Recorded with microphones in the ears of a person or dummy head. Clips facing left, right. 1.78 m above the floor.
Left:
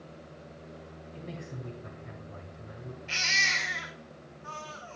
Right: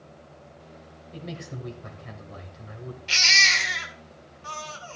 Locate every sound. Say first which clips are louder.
1.1 s a man speaking: right 5 dB; 80° right, 1.8 m
3.1 s a baby crying: right 5 dB; 60° right (ahead or behind), 1.7 m